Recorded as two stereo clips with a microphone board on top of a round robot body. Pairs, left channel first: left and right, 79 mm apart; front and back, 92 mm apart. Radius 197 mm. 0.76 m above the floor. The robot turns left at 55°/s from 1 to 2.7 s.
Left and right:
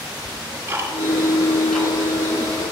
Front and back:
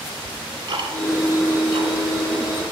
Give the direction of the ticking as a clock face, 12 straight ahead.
5 o'clock.